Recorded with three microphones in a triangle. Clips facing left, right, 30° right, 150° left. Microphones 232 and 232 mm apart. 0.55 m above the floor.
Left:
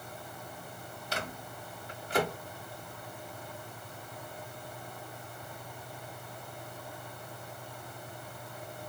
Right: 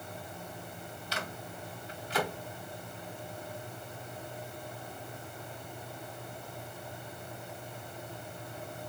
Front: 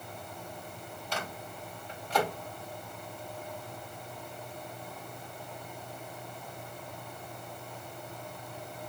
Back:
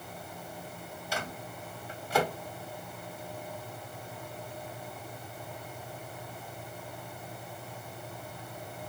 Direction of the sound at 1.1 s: 75° left.